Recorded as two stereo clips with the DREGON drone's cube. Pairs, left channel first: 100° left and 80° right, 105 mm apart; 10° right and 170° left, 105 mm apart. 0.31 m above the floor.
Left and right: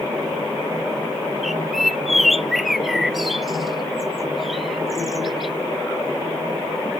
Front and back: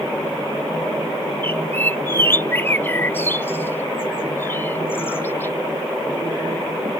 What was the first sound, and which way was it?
A bird, 5° left.